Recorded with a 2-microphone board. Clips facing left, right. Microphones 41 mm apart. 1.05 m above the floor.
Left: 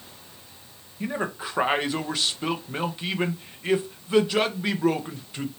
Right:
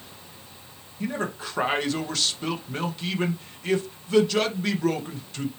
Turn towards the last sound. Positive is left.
turn(degrees=15)  # may be behind; listen again after turning